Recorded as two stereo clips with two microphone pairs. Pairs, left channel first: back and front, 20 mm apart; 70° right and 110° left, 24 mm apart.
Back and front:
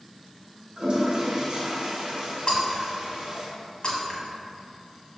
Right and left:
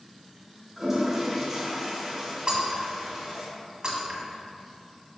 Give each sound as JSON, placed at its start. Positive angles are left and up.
{"t": 0.8, "sound": "a toilet flushing", "azimuth_deg": 35, "distance_m": 1.6}
{"t": 2.5, "sound": "breaking glass", "azimuth_deg": 150, "distance_m": 1.7}